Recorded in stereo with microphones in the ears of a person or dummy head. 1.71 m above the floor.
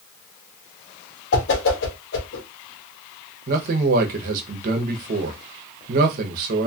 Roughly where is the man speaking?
Right.